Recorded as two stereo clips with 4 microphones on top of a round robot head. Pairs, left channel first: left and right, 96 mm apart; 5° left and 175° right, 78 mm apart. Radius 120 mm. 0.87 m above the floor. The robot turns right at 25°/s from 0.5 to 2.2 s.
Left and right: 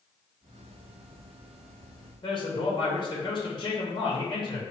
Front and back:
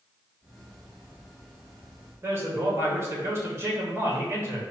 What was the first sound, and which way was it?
A man speaking, 125° left.